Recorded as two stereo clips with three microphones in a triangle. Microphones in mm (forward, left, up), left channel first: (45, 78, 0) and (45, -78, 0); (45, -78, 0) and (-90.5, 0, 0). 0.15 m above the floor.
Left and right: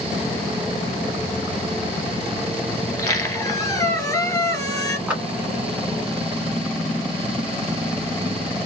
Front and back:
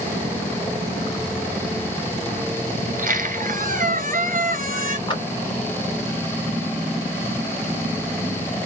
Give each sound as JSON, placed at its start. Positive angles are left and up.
{"t": 2.9, "sound": "a squeak", "azimuth_deg": 155, "distance_m": 1.0}
{"t": 5.1, "sound": "a clap", "azimuth_deg": -15, "distance_m": 1.4}